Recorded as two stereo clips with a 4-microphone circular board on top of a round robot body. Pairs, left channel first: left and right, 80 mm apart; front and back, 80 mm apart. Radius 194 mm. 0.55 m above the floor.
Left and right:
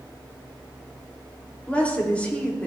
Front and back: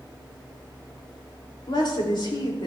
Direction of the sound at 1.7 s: 20° left.